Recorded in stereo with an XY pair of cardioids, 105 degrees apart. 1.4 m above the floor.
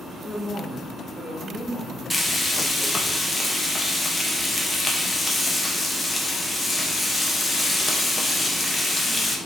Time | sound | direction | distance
0.2 | a woman speaking | 10° left | 1.3 m
2.1 | frying | 15° left | 1.0 m